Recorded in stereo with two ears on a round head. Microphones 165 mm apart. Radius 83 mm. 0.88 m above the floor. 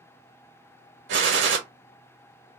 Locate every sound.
1.1 s a gunshot: 65° right (ahead or behind), 1.0 m